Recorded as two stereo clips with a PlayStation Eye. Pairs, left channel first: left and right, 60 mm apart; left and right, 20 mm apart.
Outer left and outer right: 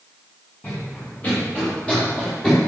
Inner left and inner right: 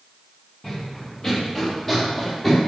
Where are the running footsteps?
30° left (ahead or behind), 5 m; by 2.6 s 15° left (ahead or behind), 4.5 m.